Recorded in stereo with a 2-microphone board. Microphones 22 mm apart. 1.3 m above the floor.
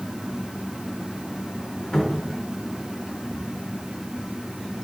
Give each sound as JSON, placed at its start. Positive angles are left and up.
{"t": 1.9, "sound": "a cupboard door", "side_deg": 45, "distance_m": 2.5}